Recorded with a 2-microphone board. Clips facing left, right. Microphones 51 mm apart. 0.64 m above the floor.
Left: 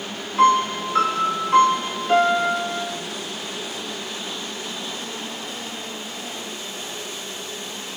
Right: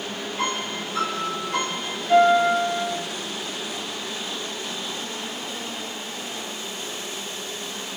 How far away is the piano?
About 1.8 m.